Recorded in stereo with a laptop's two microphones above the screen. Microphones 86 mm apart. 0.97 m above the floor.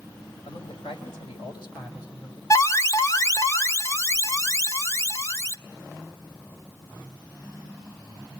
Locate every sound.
0.5 s a man speaking: 85° left, 4 m; by 2.4 s 45° left (ahead or behind), 4.5 m
2.5 s an alarm: 35° left (ahead or behind), 1.2 m